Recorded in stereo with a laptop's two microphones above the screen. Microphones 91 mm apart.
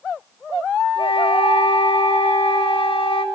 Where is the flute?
70° left (ahead or behind), 2.5 m.